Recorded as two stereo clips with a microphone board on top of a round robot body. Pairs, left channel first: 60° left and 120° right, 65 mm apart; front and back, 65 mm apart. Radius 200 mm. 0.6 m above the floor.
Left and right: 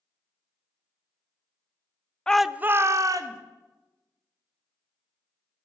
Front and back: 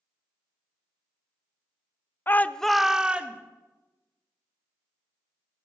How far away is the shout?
About 0.6 m.